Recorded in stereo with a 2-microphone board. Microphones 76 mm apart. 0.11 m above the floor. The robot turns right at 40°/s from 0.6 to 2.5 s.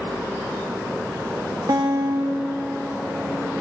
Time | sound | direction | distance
1.7 | a guitar | 45° right | 1.6 m